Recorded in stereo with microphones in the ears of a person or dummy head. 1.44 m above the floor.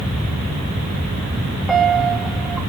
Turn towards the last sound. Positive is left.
turn(degrees=5)  # may be behind; listen again after turning